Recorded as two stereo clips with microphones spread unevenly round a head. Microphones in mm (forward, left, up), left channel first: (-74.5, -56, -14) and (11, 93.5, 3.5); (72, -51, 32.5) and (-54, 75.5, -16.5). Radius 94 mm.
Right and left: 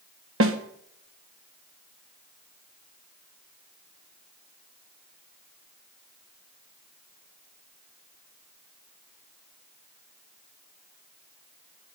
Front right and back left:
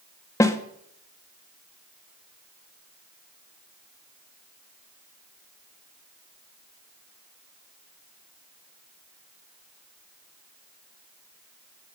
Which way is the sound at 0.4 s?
35° left.